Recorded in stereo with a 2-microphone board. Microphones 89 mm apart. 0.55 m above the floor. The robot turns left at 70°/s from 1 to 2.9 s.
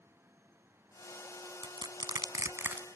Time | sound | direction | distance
1.6 | crushing | 55° right (ahead or behind) | 0.6 m